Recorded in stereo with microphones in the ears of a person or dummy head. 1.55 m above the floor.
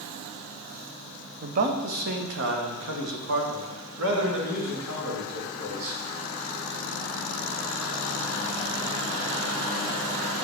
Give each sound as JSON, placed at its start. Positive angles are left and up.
{"t": 1.4, "sound": "a man speaking", "side_deg": -40, "distance_m": 0.8}